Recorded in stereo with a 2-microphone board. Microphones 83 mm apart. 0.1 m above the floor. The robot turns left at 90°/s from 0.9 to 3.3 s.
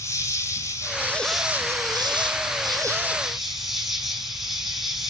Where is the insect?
40° left, 1.8 m; by 5.1 s 175° right, 1.8 m.